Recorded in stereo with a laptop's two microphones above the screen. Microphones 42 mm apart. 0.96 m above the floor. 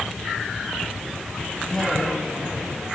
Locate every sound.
1.7 s a woman speaking: 5° left (ahead or behind), 7.5 m